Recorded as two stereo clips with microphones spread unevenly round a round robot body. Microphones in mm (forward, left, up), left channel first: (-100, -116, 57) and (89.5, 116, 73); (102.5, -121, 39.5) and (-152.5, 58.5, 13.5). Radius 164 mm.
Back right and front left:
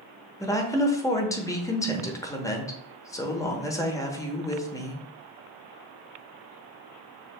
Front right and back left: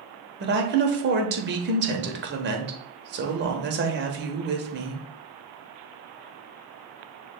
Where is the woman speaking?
160° left, 1.0 m.